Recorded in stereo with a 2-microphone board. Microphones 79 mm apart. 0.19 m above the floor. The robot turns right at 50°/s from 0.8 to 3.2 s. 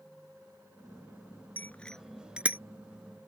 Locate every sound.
1.6 s a bicycle bell: 25° left (ahead or behind); by 2.6 s 20° right (ahead or behind)